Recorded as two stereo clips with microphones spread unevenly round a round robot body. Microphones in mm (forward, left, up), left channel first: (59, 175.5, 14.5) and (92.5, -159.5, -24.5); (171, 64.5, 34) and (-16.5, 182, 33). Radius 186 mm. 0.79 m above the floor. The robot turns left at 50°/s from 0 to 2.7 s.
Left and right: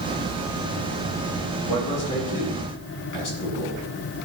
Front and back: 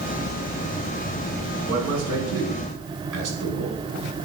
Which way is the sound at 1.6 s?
165° right.